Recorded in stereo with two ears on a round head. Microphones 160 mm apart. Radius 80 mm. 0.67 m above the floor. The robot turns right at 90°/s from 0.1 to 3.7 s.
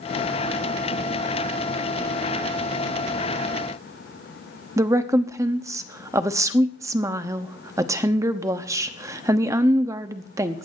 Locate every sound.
4.8 s a woman speaking: 15° right (ahead or behind), 0.8 m